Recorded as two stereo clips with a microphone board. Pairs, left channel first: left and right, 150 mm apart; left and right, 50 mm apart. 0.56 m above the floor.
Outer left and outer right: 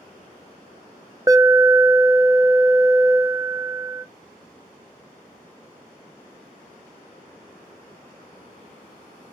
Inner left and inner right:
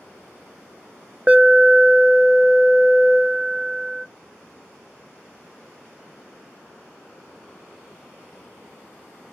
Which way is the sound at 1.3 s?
25° right (ahead or behind).